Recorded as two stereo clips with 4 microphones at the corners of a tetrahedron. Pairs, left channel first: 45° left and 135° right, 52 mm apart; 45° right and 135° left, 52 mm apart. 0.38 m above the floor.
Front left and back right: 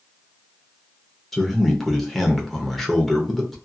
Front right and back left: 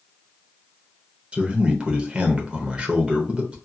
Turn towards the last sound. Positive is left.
turn(degrees=120)